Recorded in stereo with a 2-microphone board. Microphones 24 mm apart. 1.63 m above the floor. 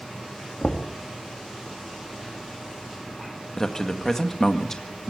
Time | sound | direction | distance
0.6 | knocking | 50° left (ahead or behind) | 1.8 m
3.6 | a man speaking | 20° left (ahead or behind) | 1.8 m